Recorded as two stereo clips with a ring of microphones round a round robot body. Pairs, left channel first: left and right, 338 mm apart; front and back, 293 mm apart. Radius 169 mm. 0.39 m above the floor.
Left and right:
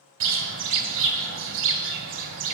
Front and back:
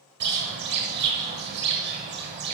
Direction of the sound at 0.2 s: 135° right.